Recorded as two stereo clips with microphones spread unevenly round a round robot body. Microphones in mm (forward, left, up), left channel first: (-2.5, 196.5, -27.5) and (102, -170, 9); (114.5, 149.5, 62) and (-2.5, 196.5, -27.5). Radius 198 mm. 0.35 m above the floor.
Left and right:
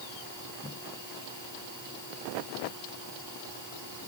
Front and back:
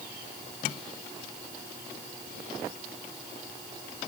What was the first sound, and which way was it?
Only background noise.